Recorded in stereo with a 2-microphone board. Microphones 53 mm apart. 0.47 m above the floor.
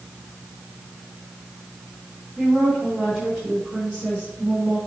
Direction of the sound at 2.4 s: 35° right (ahead or behind).